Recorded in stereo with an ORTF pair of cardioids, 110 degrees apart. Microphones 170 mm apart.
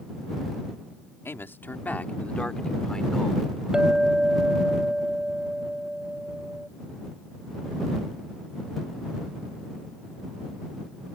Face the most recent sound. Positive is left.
turn(degrees=-5)